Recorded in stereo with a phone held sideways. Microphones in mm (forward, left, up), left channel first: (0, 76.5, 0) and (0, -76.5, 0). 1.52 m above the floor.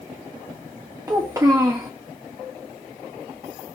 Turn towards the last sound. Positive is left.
turn(degrees=-20)  # may be behind; listen again after turning